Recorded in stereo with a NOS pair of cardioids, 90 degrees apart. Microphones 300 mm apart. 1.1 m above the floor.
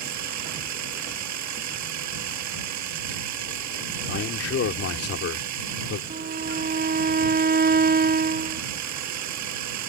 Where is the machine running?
70° right.